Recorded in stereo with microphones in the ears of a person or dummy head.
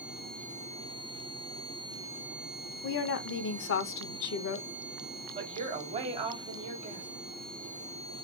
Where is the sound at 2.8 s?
65° left (ahead or behind), 0.7 m.